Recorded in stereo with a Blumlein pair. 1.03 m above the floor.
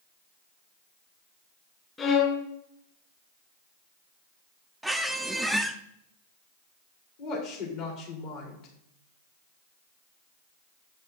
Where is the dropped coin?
No dropped coin in this recording.